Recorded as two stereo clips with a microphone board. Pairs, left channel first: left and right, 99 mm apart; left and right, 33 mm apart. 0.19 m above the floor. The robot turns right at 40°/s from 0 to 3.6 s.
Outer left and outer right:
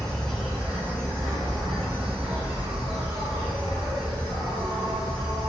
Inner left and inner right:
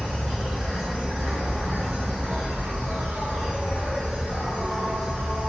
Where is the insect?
165° left, 1.3 m; by 5.5 s 50° right, 1.3 m.